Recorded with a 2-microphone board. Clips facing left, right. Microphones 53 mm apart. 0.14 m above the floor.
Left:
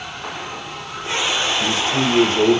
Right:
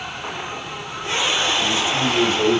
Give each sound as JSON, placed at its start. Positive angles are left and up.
{"t": 1.6, "sound": "a man speaking", "side_deg": 60, "distance_m": 6.5}